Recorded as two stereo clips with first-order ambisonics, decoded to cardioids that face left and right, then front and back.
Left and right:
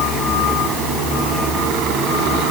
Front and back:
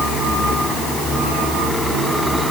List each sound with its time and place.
Only background noise.